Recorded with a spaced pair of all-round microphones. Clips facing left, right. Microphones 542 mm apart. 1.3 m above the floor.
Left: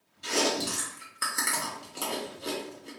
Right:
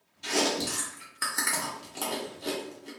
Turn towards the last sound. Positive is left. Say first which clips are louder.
# even
turn(degrees=-15)  # may be behind; listen again after turning